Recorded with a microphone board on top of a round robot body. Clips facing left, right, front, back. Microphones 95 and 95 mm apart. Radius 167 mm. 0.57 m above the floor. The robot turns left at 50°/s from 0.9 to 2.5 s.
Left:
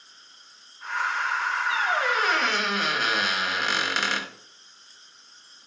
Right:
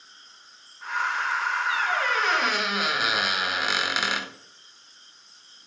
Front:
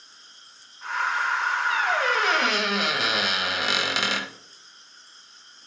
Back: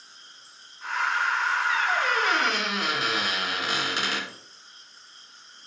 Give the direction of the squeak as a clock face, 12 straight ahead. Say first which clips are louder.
Left 2 dB, front 1 dB; 11 o'clock.